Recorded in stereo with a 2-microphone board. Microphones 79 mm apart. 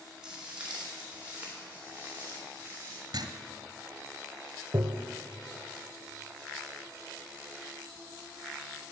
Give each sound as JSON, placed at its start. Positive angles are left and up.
{"t": 0.2, "sound": "footsteps", "side_deg": -10, "distance_m": 3.5}
{"t": 3.1, "sound": "writing", "side_deg": -70, "distance_m": 0.8}
{"t": 4.7, "sound": "tapping", "side_deg": -55, "distance_m": 0.7}